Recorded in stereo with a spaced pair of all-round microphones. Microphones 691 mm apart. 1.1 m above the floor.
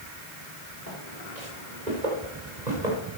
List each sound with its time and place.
0.9 s footsteps: 75° right (ahead or behind), 9 m; by 3.2 s 80° right, 8 m